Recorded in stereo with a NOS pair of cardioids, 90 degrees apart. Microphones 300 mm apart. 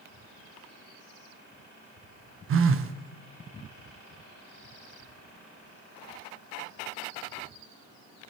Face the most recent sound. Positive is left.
turn(degrees=-45)